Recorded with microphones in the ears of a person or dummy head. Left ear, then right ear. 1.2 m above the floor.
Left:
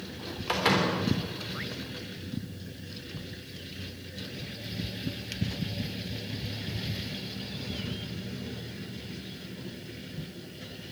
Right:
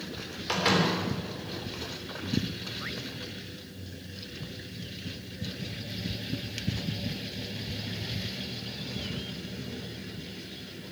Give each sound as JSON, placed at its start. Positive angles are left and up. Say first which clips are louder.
{"t": 0.5, "sound": "a door slam", "louder": "even", "side_deg": 20, "distance_m": 3.0}